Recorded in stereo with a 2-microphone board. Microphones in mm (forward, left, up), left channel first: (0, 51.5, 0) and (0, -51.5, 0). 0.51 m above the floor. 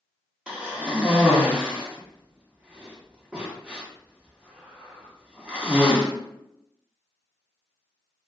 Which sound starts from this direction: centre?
A cough, at 0.5 s.